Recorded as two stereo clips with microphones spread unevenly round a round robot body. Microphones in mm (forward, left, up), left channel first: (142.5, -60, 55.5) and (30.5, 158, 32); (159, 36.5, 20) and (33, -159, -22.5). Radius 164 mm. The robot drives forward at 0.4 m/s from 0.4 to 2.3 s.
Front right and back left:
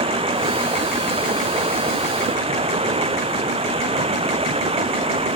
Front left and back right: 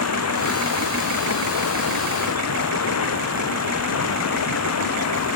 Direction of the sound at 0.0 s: 50° left.